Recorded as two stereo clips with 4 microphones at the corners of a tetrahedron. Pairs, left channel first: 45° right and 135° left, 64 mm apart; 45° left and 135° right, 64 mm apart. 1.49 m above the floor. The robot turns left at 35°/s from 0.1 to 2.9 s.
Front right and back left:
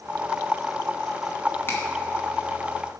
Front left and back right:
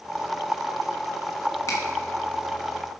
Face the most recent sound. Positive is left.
turn(degrees=-35)